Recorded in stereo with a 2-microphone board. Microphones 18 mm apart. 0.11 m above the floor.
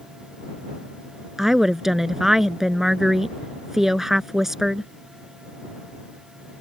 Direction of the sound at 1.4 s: 20° right (ahead or behind).